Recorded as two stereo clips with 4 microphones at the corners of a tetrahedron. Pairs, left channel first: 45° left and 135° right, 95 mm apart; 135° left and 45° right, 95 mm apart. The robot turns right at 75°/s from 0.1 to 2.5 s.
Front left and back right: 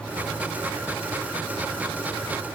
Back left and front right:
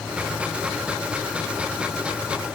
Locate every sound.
Only background noise.